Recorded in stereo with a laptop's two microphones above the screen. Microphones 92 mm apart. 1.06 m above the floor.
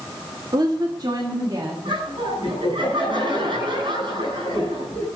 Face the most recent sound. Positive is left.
turn(degrees=-60)  # may be behind; listen again after turning